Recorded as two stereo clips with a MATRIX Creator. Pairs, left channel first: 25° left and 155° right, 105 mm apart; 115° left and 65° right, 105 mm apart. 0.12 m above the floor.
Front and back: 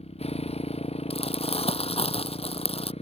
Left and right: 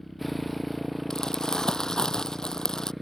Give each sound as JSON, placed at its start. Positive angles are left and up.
{"t": 0.0, "sound": "a motorcycle", "azimuth_deg": 25}
{"t": 1.1, "sound": "crumpling", "azimuth_deg": 30}